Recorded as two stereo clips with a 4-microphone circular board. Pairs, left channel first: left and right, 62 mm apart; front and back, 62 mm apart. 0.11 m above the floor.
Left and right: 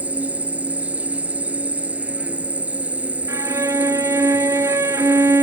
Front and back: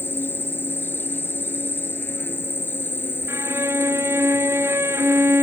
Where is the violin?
130° right.